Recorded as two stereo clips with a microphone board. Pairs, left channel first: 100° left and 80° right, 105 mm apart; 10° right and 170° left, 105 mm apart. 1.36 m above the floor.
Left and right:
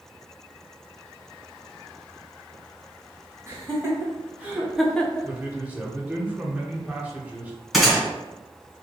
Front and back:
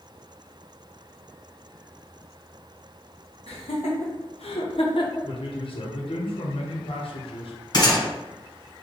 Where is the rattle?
No rattle in this recording.